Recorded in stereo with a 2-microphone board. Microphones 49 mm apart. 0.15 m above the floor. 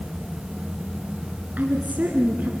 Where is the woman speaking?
35° right (ahead or behind), 1.6 m.